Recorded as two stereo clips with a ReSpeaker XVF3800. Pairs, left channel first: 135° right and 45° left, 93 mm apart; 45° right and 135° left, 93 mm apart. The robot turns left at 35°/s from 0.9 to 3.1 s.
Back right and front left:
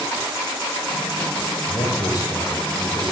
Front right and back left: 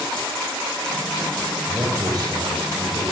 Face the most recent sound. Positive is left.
turn(degrees=145)